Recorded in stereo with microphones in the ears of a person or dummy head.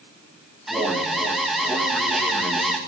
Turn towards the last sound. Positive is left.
turn(degrees=0)  # may be behind; listen again after turning